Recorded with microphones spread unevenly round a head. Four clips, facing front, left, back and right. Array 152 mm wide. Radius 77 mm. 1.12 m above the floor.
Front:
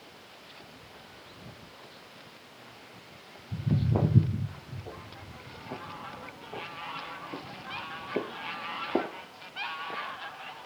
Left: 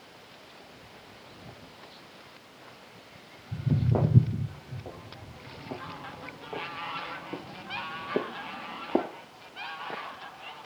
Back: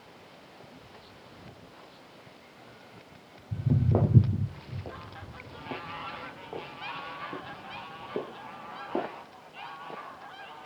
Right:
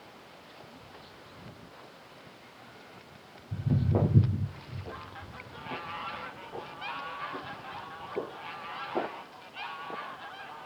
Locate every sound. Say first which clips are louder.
3.5 s footsteps: left 1 dB, back 2 dB; 165° left, 3.5 m; by 9.1 s 70° left, 2.5 m